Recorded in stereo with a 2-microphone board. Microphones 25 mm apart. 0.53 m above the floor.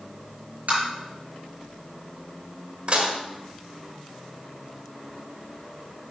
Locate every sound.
0.7 s tapping: 70° right (ahead or behind), 5 m
2.9 s dishes clattering: 45° right (ahead or behind), 1.4 m